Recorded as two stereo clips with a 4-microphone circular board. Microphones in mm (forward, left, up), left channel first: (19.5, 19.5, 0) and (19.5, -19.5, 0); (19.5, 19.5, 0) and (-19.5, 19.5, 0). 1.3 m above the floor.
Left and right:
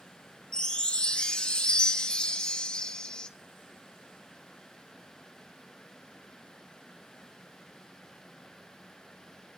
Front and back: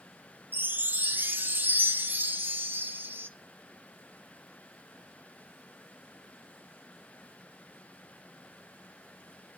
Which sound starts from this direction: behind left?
A chime, at 0.5 s.